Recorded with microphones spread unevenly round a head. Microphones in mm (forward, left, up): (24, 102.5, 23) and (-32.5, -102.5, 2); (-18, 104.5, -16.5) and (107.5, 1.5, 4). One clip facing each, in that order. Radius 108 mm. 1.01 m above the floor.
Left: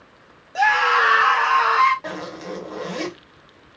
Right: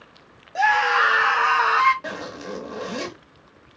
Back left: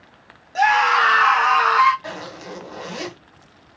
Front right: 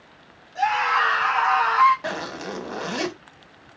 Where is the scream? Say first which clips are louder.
Left 1 dB, back left 5 dB; 160° left, 1.7 m; by 1.9 s 175° left, 2 m.